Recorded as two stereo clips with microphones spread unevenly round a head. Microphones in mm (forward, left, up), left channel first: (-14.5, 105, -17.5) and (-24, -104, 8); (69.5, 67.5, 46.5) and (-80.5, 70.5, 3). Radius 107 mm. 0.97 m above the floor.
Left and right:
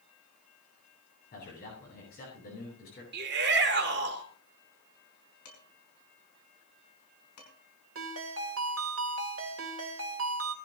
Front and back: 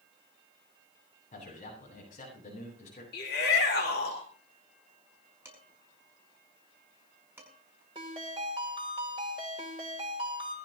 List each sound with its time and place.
1.3 s a man speaking: 35° left, 8.5 m
3.1 s a shout: 50° right, 3 m
5.5 s dishes clattering: 105° left, 5.5 m
8.0 s a ringtone: 115° right, 2.5 m